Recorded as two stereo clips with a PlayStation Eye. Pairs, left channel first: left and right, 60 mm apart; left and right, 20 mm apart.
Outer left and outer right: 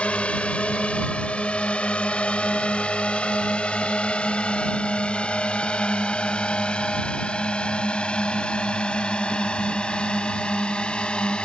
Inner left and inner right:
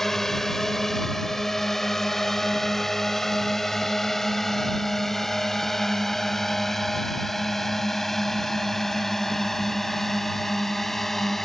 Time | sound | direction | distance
0.0 | a drone | 20° left (ahead or behind) | ?